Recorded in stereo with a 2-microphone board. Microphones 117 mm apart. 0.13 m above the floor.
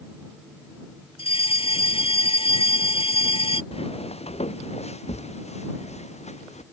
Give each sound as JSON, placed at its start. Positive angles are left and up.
{"t": 1.2, "sound": "a fire alarm", "side_deg": 50}
{"t": 3.7, "sound": "footsteps", "side_deg": 60}